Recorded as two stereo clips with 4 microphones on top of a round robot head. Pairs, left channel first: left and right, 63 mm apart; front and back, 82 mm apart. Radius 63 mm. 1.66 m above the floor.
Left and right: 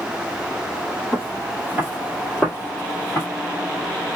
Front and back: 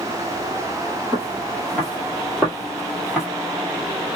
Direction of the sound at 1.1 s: 95° right.